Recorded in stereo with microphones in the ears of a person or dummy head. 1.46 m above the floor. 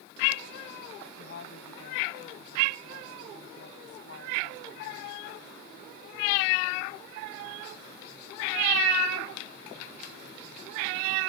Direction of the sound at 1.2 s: 60° left (ahead or behind).